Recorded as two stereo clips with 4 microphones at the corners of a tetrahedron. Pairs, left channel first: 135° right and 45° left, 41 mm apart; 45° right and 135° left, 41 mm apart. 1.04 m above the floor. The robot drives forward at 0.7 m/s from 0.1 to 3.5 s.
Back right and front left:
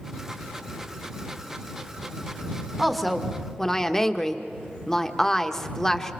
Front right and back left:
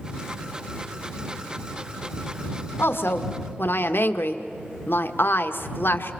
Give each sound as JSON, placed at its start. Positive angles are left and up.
{"t": 2.8, "sound": "a woman speaking", "azimuth_deg": -40, "distance_m": 1.7}